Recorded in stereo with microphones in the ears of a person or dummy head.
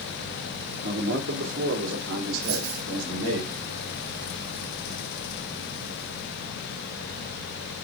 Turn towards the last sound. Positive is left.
turn(degrees=-65)  # may be behind; listen again after turning